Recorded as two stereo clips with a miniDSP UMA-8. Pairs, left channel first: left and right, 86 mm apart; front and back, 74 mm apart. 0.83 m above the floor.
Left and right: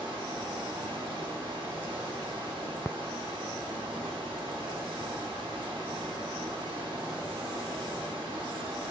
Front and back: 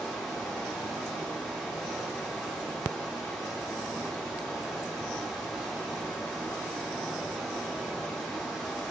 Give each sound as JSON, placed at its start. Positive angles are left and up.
{"t": 0.0, "sound": "running water", "azimuth_deg": -90, "distance_m": 1.4}